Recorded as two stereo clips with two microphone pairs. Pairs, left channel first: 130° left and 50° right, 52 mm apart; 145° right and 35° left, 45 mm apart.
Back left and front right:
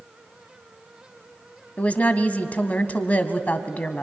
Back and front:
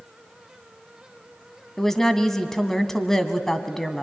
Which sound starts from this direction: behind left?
A woman speaking, at 1.8 s.